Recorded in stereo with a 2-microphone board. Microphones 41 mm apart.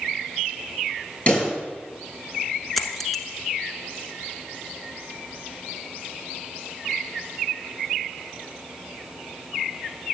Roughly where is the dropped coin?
Centre.